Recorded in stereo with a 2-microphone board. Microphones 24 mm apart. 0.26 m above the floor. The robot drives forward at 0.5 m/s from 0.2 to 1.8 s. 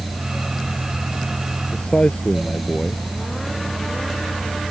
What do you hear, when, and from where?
1.7 s a man speaking: 60° left (ahead or behind)